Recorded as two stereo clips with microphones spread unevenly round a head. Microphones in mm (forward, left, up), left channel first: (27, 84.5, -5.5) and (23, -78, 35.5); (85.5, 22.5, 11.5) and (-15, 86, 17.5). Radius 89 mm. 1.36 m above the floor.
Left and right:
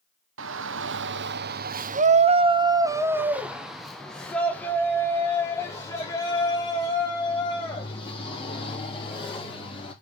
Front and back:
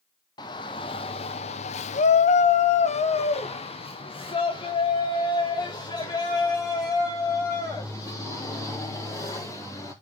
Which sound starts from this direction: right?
A shout, at 0.4 s.